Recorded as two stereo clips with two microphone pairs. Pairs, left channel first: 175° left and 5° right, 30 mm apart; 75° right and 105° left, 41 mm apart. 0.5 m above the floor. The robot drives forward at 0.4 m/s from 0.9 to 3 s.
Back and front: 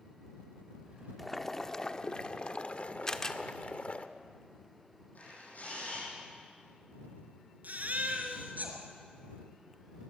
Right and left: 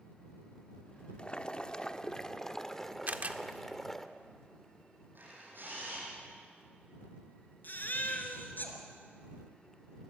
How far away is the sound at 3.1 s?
About 1.1 m.